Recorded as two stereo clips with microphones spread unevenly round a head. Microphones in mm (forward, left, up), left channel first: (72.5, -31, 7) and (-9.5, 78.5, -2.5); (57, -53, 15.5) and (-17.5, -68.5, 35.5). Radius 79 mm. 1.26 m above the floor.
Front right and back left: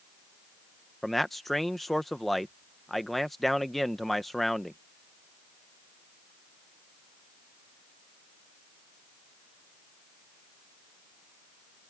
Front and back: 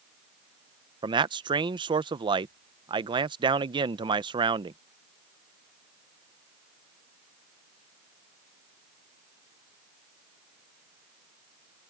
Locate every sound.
1.0 s a man speaking: 145° right